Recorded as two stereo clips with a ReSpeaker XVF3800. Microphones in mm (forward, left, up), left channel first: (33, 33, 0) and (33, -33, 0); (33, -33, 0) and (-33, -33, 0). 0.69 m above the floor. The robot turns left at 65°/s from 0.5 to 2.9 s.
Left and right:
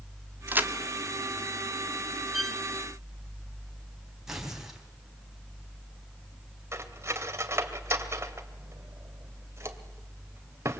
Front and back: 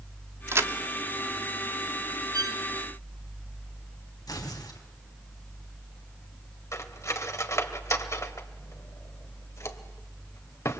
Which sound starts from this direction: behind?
A violin, at 2.3 s.